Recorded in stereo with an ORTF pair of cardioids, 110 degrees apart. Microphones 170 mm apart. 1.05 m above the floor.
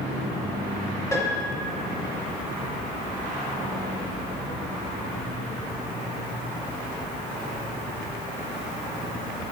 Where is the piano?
20° left, 2.5 m.